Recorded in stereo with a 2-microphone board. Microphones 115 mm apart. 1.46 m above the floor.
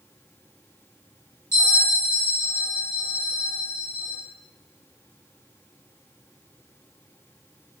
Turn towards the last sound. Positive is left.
turn(degrees=25)  # may be behind; listen again after turning